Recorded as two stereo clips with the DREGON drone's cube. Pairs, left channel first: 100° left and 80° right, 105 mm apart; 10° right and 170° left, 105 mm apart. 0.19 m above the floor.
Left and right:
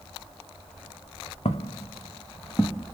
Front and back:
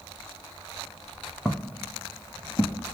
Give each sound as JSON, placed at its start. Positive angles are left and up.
{"t": 1.4, "sound": "footsteps", "azimuth_deg": 75, "distance_m": 0.7}